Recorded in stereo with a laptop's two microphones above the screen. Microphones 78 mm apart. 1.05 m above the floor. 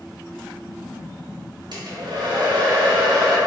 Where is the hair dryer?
60° right (ahead or behind), 0.5 m.